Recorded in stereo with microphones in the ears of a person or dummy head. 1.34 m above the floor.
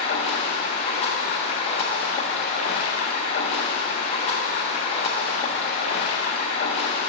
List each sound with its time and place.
0.0 s running water: 45° left (ahead or behind), 0.9 m